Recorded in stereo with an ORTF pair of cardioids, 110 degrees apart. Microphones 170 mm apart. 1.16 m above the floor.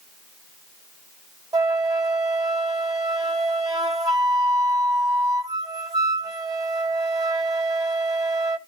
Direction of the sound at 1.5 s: 20° right.